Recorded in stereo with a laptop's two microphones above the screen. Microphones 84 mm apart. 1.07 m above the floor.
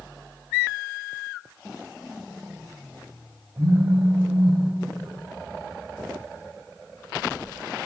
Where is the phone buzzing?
35° right (ahead or behind), 1.6 m.